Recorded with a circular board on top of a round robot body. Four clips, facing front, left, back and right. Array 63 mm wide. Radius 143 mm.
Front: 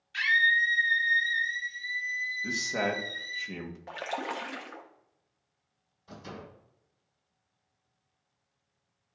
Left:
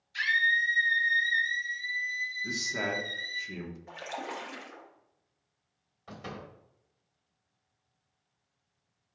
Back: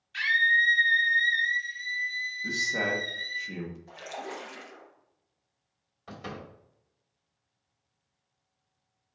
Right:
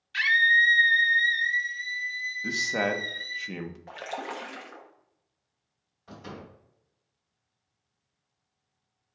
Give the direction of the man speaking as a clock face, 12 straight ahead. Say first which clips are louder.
Right 9 dB, back 3 dB; 3 o'clock.